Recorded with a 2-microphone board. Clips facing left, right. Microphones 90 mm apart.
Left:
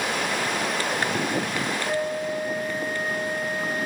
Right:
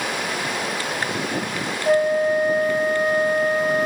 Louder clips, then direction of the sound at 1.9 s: Right 14 dB; 65° right (ahead or behind).